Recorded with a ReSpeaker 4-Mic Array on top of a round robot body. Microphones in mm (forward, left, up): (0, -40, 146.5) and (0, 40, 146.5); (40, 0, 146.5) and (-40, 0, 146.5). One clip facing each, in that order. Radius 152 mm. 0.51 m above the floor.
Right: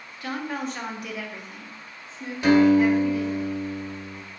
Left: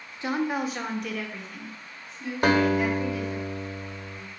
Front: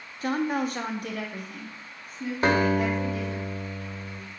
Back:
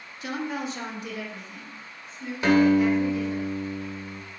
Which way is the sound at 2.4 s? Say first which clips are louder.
Right 5 dB, back 4 dB; 50° left.